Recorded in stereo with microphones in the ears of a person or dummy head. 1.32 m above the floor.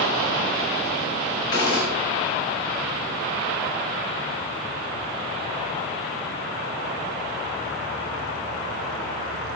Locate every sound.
1.5 s a gunshot: 35° left (ahead or behind), 1.8 m